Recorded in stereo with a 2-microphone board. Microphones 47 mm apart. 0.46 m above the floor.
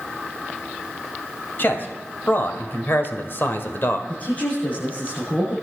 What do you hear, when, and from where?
1.6 s a man speaking: 50° left (ahead or behind), 2.5 m; by 4.0 s 55° left (ahead or behind), 1.8 m
4.1 s a man speaking: 45° left (ahead or behind), 8 m